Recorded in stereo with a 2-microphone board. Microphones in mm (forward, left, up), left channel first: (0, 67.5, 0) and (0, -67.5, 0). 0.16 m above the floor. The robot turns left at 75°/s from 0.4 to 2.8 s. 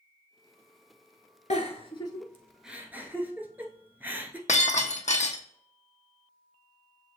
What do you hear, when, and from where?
1.5 s a giggle: 65° left (ahead or behind), 0.9 m; by 4.4 s 15° right (ahead or behind), 0.9 m
4.5 s breaking glass: 70° left (ahead or behind), 0.9 m